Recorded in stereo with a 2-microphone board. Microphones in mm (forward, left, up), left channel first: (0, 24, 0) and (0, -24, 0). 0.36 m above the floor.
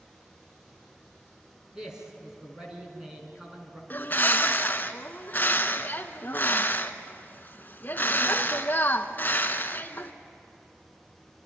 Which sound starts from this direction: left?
A bird, at 3.9 s.